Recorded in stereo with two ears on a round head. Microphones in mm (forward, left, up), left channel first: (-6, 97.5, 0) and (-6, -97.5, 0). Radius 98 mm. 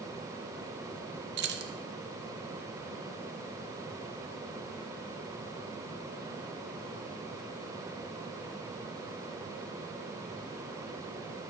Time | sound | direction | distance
1.4 | keys jangling | 50° right (ahead or behind) | 0.5 m